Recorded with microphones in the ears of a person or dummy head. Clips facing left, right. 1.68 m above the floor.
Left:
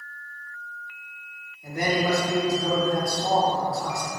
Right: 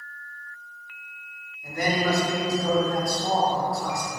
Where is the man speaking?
25° left (ahead or behind), 0.7 m.